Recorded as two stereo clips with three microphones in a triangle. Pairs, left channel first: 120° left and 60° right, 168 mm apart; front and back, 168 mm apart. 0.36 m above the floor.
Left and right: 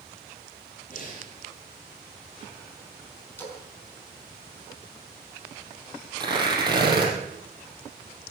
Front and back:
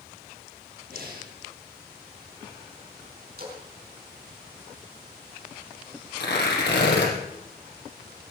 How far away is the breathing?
About 7.5 m.